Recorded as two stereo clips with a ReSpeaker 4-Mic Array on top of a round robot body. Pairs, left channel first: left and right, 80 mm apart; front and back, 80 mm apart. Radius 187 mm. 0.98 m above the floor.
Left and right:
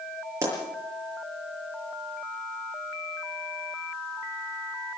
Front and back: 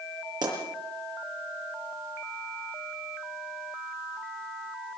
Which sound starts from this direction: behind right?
A pop, at 0.4 s.